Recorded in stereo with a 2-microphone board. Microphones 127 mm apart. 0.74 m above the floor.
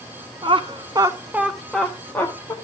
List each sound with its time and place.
0.4 s laughter: 40° right (ahead or behind), 0.9 m; by 2.5 s 20° left (ahead or behind), 1.3 m